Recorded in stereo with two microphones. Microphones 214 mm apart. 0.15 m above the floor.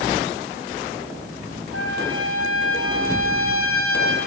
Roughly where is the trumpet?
Right.